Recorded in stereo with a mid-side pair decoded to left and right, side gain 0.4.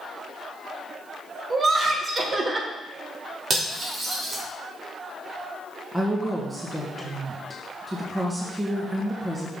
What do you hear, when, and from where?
1.5 s laughter: 45° right, 1.9 m
3.5 s cutlery clinking: 55° right, 2.5 m
5.9 s a woman speaking: 20° right, 1.8 m